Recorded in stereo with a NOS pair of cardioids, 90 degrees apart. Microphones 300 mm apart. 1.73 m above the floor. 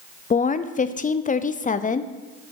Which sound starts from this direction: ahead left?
A woman speaking, at 0.3 s.